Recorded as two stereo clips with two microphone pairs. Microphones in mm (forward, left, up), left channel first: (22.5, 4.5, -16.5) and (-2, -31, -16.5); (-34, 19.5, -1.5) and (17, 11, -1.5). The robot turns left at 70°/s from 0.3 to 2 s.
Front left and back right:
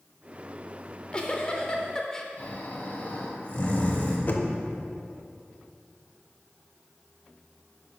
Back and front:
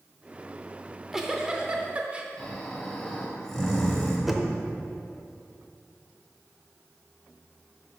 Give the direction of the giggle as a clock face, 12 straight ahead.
9 o'clock.